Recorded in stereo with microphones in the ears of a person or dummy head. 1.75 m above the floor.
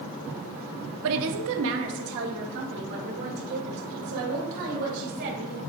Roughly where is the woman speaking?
Right.